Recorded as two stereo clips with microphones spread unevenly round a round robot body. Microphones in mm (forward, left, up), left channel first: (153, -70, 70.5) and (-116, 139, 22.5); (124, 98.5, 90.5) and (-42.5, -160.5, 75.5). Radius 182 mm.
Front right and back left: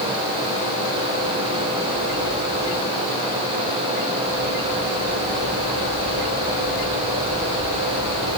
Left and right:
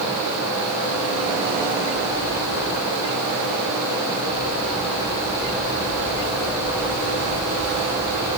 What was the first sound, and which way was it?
Only background noise.